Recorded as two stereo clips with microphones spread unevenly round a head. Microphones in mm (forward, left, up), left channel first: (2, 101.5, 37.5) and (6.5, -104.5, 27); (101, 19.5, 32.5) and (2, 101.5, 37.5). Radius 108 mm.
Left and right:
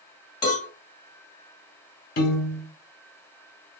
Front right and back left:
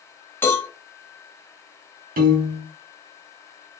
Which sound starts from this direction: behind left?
A piano, at 2.2 s.